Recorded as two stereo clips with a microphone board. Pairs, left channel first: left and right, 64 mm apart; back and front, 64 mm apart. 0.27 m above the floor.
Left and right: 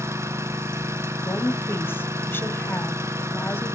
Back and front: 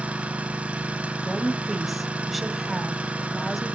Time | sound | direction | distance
0.0 | an engine running | 65° right | 1.6 m
1.2 | a woman speaking | 90° left | 1.1 m